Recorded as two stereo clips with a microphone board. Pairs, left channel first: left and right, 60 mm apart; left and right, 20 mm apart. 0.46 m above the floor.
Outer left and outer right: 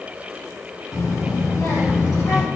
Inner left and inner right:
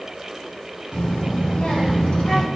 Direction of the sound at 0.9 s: 75° left (ahead or behind).